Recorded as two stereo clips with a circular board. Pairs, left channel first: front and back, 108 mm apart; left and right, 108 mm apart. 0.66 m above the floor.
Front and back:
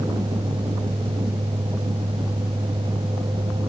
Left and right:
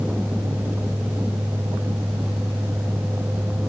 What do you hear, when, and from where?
Only background noise.